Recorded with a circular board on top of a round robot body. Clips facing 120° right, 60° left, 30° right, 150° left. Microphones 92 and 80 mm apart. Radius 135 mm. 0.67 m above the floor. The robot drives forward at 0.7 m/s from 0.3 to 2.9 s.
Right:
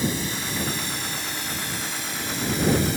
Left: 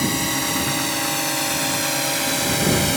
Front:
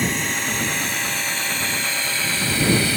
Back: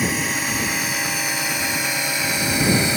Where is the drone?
65° left; by 3.0 s 75° left.